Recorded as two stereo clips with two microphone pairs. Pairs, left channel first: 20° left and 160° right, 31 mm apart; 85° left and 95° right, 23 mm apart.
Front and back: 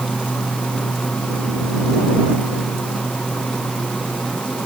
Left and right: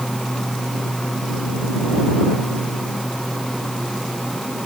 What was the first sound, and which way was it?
Only background noise.